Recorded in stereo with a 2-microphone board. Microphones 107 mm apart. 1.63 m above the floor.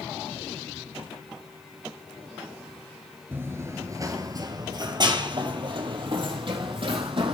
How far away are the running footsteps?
About 1.6 m.